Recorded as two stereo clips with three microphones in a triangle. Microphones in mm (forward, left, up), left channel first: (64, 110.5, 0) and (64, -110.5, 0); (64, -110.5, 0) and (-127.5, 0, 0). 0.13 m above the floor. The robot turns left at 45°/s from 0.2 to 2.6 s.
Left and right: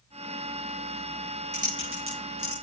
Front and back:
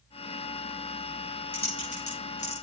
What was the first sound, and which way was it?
Typing on a keyboard, 50° right.